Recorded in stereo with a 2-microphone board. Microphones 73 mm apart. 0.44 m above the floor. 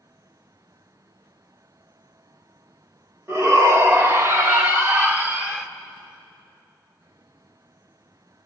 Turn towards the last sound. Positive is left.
turn(degrees=-15)  # may be behind; listen again after turning